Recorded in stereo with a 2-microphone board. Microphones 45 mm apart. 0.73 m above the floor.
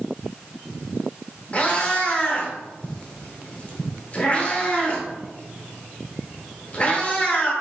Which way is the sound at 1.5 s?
25° left (ahead or behind).